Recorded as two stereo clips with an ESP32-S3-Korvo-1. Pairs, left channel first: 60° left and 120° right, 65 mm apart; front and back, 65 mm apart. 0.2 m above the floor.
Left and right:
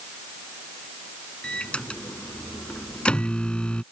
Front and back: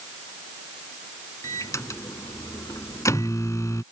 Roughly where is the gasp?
No gasp in this recording.